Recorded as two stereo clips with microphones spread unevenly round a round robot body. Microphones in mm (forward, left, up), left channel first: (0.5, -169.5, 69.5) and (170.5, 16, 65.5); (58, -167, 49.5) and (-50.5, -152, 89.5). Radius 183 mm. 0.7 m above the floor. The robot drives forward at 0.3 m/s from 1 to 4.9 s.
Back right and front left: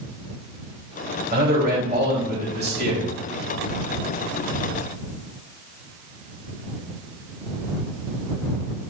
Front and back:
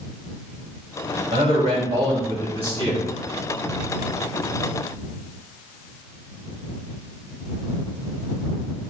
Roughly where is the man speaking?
Behind left.